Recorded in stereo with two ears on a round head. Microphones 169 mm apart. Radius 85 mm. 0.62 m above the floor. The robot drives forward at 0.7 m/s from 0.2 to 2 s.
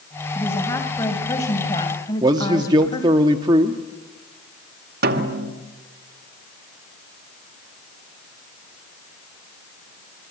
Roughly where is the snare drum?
Right.